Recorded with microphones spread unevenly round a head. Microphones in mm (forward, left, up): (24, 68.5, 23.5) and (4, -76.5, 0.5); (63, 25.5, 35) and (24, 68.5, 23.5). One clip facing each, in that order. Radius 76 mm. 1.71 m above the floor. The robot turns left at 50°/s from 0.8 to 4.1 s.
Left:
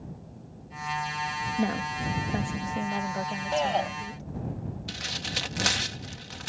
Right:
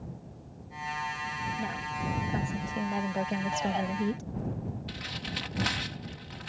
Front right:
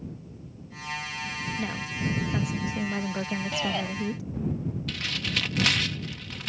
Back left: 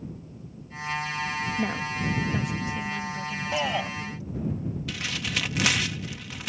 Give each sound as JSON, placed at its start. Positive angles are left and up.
{"t": 1.6, "sound": "a woman speaking", "azimuth_deg": 60}
{"t": 3.5, "sound": "a shout", "azimuth_deg": 65}
{"t": 4.9, "sound": "tearing paper", "azimuth_deg": 45}